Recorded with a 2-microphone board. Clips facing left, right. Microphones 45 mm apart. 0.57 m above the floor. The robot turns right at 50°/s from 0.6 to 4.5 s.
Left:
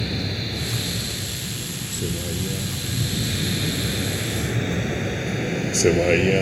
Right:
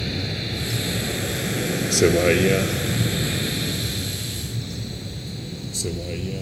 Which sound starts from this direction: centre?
A vehicle, at 0.0 s.